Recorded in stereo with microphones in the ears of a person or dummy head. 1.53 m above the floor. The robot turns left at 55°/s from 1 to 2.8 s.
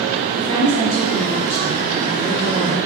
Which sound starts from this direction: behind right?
A woman speaking, at 0.4 s.